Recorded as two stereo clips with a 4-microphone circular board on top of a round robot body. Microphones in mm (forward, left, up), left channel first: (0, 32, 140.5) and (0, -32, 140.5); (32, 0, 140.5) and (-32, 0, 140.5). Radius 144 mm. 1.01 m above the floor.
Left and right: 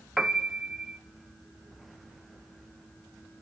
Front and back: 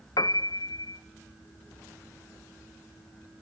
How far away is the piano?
About 1.0 m.